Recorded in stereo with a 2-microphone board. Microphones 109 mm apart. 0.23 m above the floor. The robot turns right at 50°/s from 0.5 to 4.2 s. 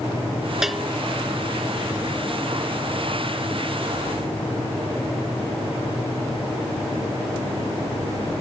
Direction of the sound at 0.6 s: 5° right (ahead or behind).